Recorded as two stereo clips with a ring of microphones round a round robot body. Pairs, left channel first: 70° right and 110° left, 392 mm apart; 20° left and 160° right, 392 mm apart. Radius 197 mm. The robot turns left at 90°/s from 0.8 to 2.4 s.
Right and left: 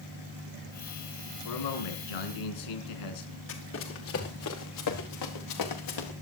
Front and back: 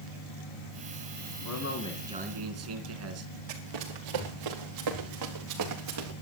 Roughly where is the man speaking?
Ahead.